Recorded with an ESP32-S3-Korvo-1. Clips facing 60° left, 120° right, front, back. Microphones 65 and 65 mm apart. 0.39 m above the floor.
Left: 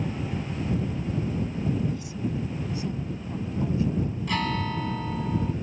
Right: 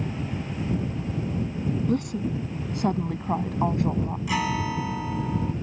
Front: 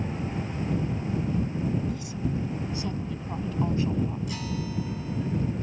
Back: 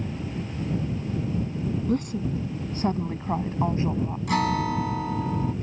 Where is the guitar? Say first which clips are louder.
Right 3 dB, back 9 dB; 160° left.